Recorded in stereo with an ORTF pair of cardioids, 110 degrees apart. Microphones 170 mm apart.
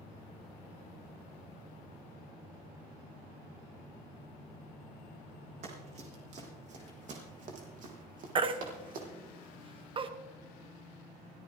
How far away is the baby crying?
About 1.1 m.